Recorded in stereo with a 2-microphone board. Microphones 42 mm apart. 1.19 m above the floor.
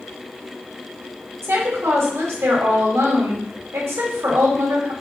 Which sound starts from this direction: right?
A woman speaking, at 1.4 s.